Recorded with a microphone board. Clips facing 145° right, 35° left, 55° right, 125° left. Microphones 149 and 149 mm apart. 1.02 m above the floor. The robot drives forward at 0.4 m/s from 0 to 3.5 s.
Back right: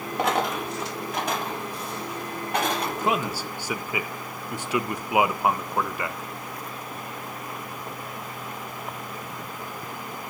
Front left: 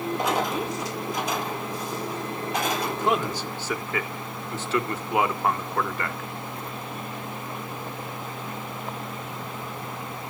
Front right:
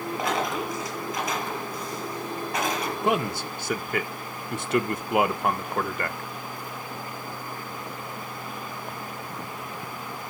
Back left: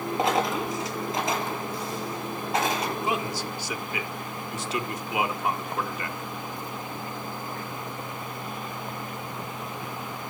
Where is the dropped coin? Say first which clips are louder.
Back right 3 dB, back left 3 dB; 170° right, 7 m.